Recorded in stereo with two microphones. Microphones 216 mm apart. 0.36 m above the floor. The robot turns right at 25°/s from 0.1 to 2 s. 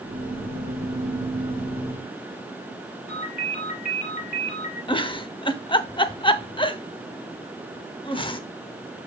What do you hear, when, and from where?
3.1 s a ringtone: 30° left (ahead or behind), 4 m
4.9 s a giggle: 20° left (ahead or behind), 0.6 m